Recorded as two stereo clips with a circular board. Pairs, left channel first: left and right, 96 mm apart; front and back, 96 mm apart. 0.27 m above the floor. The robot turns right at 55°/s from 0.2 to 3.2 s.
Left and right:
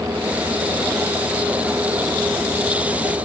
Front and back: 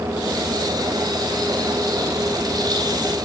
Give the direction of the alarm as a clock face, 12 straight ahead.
I don't hear an alarm.